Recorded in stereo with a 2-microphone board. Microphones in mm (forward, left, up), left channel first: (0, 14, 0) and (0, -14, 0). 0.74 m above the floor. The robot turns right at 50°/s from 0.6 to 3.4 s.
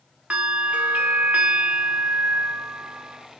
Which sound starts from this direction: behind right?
A bell, at 0.3 s.